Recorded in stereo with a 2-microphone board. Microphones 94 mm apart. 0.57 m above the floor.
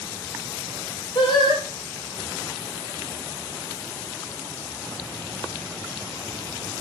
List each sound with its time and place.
1.1 s singing: 60° left (ahead or behind), 6 m